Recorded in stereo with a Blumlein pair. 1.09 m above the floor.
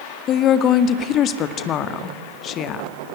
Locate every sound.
0.3 s a woman speaking: 30° left, 1.8 m